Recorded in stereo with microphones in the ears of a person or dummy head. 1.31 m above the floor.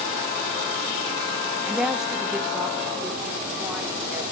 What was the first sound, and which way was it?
A woman speaking, 5° right (ahead or behind).